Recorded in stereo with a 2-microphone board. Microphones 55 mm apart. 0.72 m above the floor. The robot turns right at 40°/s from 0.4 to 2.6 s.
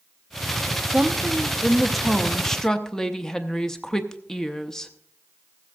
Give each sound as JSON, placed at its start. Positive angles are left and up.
{"t": 0.9, "sound": "a woman speaking", "side_deg": -15, "distance_m": 0.7}